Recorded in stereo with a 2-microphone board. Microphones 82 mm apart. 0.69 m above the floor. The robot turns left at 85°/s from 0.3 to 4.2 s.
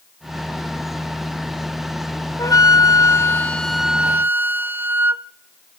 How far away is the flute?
About 0.6 m.